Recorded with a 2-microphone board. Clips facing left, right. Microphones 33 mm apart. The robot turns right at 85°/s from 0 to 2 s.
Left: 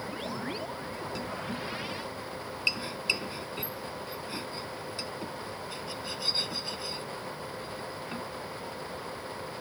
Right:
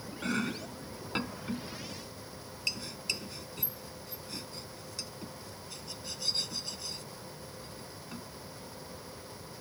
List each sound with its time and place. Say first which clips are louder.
0.2 s chopping: right 6 dB; 60° right (ahead or behind); by 8.3 s 30° left (ahead or behind)